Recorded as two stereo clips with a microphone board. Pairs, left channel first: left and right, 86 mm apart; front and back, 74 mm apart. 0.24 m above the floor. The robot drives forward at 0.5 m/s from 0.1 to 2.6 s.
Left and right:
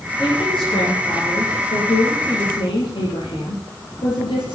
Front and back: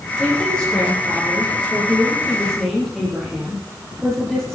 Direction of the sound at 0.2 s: 80° left.